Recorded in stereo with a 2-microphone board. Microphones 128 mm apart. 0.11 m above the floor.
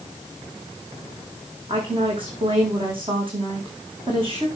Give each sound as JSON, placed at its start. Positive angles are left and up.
{"t": 1.7, "sound": "a woman speaking", "side_deg": -45, "distance_m": 6.5}